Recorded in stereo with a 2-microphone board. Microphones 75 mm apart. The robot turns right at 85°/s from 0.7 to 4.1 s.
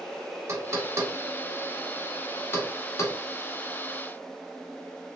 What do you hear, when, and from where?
0.5 s knocking: 40° right (ahead or behind), 0.9 m; by 3.2 s 40° left (ahead or behind), 0.9 m